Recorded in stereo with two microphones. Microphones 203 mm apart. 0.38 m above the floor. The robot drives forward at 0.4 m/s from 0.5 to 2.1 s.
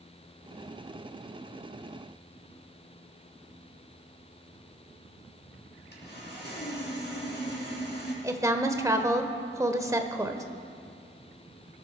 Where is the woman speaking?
15° right (ahead or behind), 1.1 m.